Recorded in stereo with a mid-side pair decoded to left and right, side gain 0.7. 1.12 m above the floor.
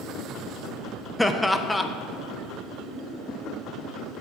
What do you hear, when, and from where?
1.2 s laughter: 5° left, 0.5 m